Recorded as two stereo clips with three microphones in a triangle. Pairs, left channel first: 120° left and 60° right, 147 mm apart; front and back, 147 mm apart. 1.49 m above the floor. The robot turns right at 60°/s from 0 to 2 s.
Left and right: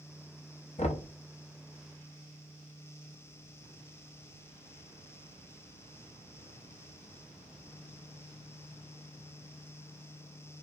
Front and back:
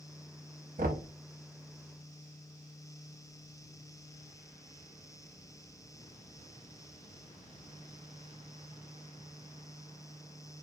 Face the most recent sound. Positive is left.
turn(degrees=-130)